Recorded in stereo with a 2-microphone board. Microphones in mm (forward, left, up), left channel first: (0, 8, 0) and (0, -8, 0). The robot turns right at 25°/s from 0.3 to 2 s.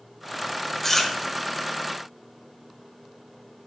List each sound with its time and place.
0.8 s chewing: 15° left (ahead or behind), 0.9 m; by 1.1 s 20° left (ahead or behind), 0.9 m